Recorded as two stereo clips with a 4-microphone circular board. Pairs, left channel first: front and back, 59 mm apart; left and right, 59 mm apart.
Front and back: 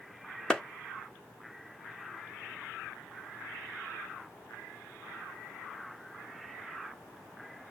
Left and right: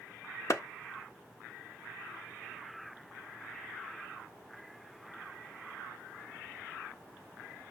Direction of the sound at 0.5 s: 80° left.